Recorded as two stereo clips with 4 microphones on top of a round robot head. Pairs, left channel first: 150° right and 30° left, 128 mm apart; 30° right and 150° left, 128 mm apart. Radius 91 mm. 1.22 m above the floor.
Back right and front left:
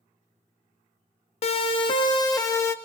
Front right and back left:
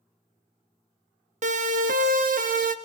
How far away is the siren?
About 3.5 m.